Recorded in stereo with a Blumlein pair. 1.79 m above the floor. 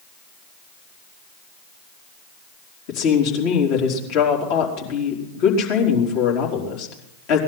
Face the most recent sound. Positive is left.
turn(degrees=45)